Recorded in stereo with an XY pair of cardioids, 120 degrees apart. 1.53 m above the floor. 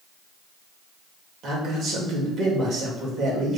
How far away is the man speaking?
About 2.5 m.